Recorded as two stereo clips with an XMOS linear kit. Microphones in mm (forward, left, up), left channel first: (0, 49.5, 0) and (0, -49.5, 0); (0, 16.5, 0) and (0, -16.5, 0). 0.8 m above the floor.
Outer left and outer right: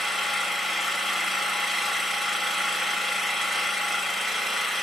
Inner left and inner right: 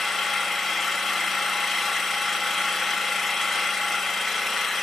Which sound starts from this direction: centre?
An engine running, at 0.0 s.